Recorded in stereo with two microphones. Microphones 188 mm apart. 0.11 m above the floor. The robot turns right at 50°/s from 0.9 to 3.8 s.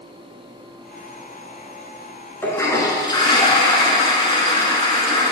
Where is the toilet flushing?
10° left (ahead or behind), 1.2 m; by 5.3 s 25° left (ahead or behind), 1.2 m.